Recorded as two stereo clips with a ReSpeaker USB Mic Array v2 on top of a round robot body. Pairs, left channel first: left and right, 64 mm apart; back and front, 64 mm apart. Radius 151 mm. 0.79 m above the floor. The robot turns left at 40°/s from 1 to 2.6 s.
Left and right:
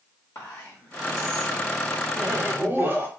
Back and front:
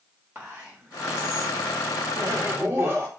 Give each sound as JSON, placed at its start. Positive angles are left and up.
{"t": 0.3, "sound": "whispering", "azimuth_deg": 60, "distance_m": 1.5}
{"t": 2.2, "sound": "laughter", "azimuth_deg": -25, "distance_m": 1.3}